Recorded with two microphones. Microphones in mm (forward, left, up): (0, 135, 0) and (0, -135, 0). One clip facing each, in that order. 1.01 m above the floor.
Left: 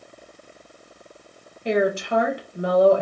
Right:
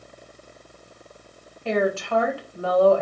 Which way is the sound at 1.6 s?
20° left (ahead or behind).